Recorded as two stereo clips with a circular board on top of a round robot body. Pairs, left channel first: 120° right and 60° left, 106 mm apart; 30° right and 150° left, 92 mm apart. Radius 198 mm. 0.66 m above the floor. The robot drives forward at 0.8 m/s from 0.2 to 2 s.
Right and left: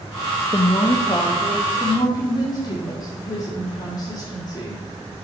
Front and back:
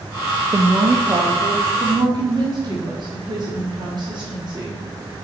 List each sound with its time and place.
0.5 s a woman speaking: 150° right, 0.7 m; by 4.8 s 170° right, 1.7 m